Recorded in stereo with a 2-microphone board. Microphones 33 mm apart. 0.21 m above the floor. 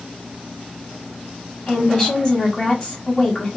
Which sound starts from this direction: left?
A woman speaking, at 1.7 s.